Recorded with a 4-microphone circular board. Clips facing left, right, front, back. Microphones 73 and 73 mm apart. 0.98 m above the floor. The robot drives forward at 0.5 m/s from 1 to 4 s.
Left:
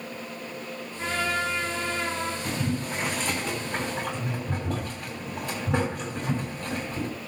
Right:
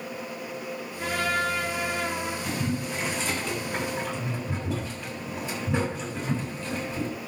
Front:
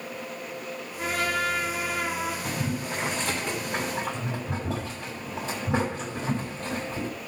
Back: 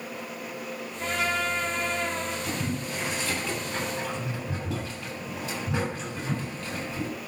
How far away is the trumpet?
About 7 m.